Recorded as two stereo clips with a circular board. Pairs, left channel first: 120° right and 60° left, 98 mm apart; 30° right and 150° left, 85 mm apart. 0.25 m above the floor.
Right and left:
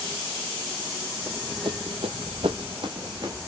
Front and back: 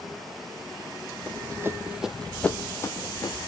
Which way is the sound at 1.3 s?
105° left.